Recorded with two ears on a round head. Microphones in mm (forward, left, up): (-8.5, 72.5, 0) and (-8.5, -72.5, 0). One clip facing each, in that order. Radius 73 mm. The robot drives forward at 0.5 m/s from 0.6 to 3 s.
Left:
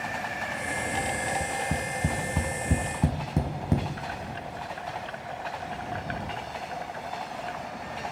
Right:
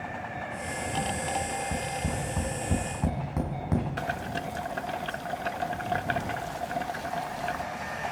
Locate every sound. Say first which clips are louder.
1.4 s tapping: left 1 dB; 45° left (ahead or behind), 4 m; by 3.9 s 35° left (ahead or behind), 4.5 m
4.0 s boiling: right 3 dB; 55° right (ahead or behind), 0.8 m